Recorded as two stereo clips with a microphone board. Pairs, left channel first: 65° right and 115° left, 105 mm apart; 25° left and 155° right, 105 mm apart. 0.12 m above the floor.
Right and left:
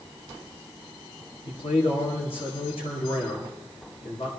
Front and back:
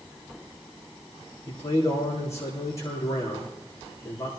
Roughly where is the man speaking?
Ahead right.